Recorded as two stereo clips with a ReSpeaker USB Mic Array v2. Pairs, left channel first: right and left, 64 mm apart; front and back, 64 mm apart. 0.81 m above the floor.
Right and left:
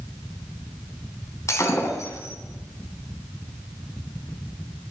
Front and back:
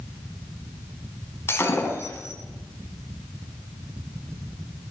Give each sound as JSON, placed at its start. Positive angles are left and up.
{"t": 1.5, "sound": "breaking glass", "azimuth_deg": -50, "distance_m": 4.0}